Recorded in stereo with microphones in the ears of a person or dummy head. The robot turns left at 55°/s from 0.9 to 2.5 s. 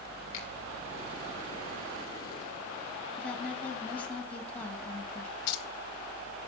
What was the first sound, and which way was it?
A finger snap, 40° left (ahead or behind).